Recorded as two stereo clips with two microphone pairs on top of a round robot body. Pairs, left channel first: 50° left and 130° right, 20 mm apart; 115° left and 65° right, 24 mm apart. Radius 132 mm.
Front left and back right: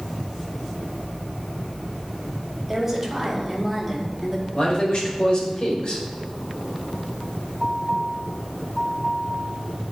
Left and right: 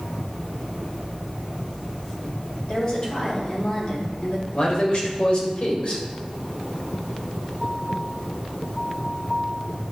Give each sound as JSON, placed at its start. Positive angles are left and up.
{"t": 2.7, "sound": "a woman speaking", "azimuth_deg": 150, "distance_m": 3.0}
{"t": 4.5, "sound": "a man speaking", "azimuth_deg": 85, "distance_m": 2.0}